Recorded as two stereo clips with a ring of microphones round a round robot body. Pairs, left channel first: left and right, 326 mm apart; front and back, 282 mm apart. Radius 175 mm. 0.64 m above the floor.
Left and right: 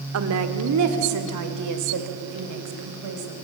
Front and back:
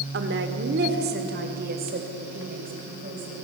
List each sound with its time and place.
0.1 s a woman speaking: 130° right, 1.5 m; by 3.4 s 115° right, 3.5 m